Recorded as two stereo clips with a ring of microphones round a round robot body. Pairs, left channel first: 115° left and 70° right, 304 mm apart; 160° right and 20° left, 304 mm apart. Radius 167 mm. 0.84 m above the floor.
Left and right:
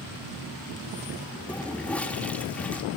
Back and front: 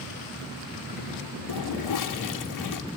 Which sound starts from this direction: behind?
A toilet flushing, at 1.5 s.